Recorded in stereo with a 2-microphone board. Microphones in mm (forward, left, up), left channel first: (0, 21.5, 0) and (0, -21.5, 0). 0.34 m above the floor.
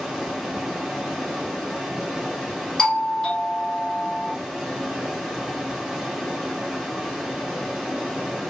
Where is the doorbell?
10° left (ahead or behind), 2.5 m.